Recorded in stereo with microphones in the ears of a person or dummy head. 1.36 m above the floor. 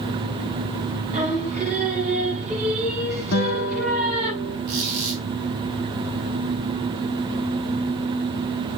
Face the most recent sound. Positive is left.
turn(degrees=-50)  # may be behind; listen again after turning